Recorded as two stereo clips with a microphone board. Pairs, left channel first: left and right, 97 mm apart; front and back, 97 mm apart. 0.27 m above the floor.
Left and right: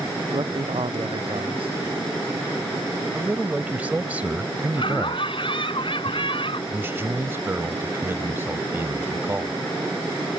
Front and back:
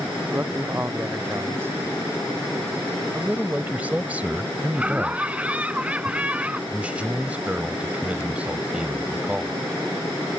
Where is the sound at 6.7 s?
120° right.